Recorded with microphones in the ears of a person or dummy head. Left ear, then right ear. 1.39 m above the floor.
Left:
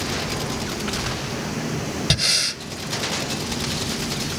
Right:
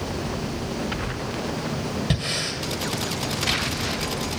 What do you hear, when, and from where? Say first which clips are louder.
2.1 s breathing: left 9 dB; 35° left (ahead or behind), 1.6 m